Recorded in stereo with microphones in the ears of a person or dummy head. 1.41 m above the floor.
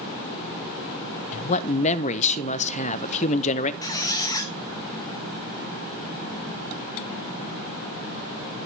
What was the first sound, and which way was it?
A man speaking, 35° left (ahead or behind).